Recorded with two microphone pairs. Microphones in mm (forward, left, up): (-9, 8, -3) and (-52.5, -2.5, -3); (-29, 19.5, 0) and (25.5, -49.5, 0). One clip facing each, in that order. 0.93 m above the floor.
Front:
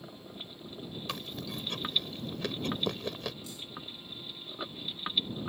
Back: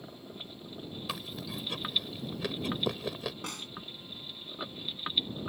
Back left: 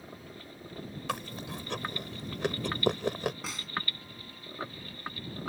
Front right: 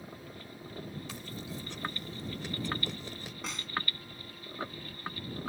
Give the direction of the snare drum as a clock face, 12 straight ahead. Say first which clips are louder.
Back 4 dB, even; 5 o'clock.